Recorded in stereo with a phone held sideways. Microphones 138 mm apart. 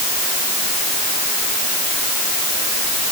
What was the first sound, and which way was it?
Only background noise.